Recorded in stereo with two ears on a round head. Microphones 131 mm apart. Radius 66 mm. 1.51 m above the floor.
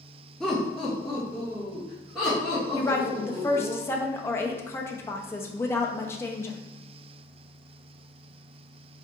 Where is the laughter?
5° left (ahead or behind), 0.6 m; by 3.7 s centre (ahead or behind), 2.5 m.